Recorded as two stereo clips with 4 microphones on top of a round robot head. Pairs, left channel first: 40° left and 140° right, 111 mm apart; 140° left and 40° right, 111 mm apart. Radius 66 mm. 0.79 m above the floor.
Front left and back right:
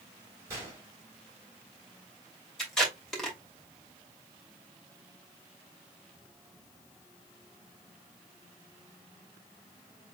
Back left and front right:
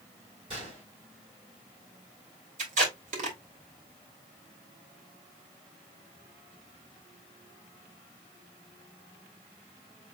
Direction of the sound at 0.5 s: 75° right.